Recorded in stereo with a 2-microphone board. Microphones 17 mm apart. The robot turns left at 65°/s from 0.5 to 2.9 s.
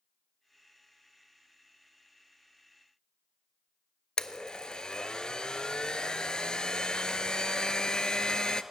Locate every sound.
4.2 s a blender: 60° left (ahead or behind), 0.5 m